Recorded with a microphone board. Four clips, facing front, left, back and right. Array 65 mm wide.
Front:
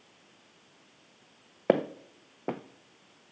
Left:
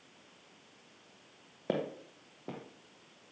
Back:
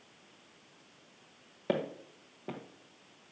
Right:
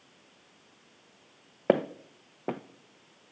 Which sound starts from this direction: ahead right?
Footsteps, at 1.7 s.